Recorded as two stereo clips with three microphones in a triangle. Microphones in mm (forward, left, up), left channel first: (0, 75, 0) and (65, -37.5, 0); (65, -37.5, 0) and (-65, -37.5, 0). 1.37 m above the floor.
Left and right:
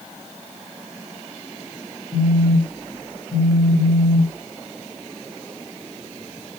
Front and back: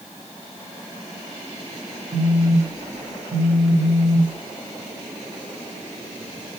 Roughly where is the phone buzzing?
Behind left.